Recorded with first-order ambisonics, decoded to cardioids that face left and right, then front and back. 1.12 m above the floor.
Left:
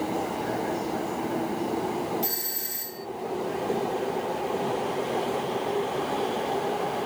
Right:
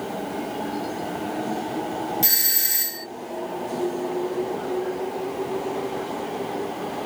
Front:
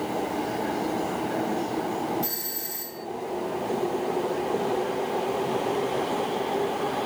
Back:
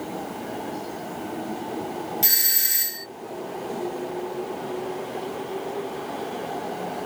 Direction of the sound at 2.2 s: 140° right.